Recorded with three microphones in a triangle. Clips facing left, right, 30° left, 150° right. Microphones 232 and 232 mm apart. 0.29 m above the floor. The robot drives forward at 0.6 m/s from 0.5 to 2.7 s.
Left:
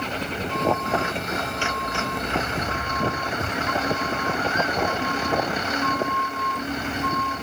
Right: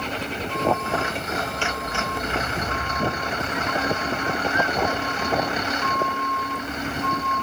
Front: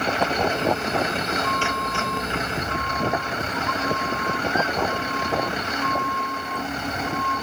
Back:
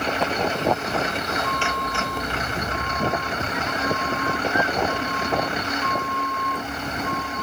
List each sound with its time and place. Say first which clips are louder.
3.4 s a squeak: even, even; 135° left